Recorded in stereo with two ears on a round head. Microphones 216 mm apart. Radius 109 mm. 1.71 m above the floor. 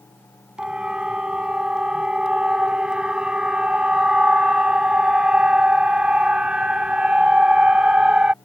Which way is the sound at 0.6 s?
5° right (ahead or behind).